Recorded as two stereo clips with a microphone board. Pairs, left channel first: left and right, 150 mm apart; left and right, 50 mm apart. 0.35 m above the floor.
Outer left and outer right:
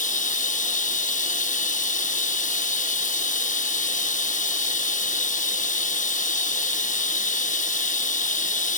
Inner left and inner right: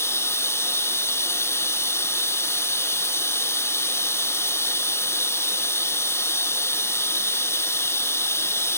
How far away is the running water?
About 1.0 m.